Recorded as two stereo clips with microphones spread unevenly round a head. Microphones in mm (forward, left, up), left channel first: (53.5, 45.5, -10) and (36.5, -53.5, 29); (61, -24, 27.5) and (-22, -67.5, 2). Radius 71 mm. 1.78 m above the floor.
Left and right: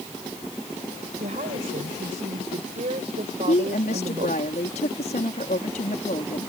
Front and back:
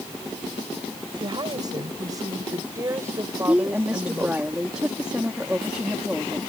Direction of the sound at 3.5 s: 120° left.